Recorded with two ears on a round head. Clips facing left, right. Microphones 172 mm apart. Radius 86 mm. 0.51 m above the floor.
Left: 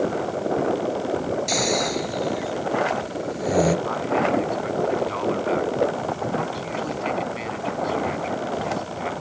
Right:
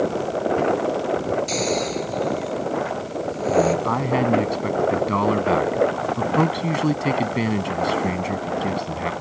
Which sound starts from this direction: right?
A man speaking, at 3.9 s.